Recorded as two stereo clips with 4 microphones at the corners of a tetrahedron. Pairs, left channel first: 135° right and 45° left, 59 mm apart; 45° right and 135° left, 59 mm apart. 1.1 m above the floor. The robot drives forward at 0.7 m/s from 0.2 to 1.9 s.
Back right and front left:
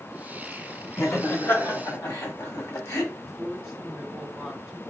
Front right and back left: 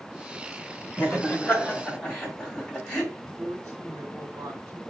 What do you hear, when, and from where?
1.0 s laughter: 105° right, 2 m; by 3.0 s 120° right, 2.5 m
3.1 s a woman speaking: 135° left, 1.8 m